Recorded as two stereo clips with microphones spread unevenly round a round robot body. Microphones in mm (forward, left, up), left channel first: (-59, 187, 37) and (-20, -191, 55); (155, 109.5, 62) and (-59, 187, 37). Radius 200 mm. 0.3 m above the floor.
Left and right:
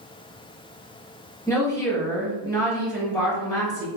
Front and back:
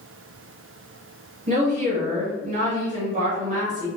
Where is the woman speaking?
170° left, 1.1 m.